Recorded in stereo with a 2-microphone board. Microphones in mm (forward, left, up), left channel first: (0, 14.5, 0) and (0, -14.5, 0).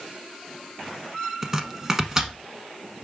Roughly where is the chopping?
Centre.